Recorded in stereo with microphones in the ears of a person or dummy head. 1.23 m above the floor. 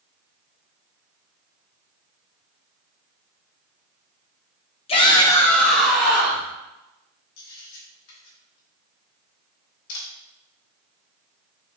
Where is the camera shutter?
80° left, 1.2 m.